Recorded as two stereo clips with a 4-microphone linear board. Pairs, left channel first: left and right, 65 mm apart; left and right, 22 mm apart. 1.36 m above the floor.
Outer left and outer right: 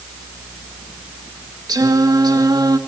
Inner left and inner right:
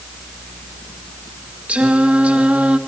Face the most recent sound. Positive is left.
turn(degrees=-85)